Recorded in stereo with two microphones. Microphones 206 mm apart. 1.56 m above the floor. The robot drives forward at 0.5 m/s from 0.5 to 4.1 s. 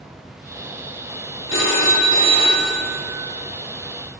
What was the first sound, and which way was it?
A phone ringing, 65° left (ahead or behind).